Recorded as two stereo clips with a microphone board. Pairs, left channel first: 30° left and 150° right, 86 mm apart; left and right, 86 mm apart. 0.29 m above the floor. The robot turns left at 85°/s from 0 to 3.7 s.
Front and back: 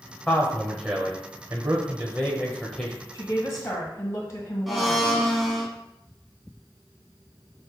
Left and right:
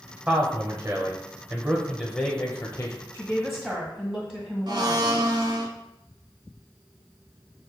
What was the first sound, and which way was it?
A man speaking, 55° right.